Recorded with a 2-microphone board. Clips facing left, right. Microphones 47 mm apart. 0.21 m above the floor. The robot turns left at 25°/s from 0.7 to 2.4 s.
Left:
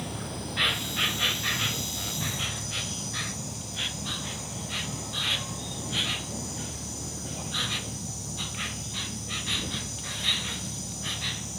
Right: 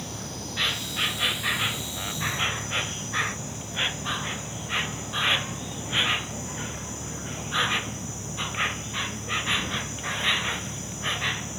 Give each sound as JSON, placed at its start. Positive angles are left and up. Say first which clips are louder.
{"t": 0.0, "sound": "an insect", "louder": "left 1 dB", "azimuth_deg": 5}